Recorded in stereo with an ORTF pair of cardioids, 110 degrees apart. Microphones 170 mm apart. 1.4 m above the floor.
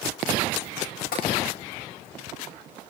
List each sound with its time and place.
1.1 s tapping: 60° left, 8.5 m